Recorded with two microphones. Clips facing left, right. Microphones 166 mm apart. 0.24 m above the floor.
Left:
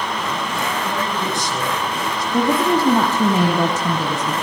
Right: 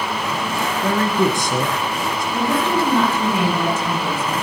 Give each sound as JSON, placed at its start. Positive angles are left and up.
{"t": 0.8, "sound": "a man speaking", "side_deg": -50, "distance_m": 3.0}
{"t": 2.3, "sound": "a woman speaking", "side_deg": 40, "distance_m": 1.7}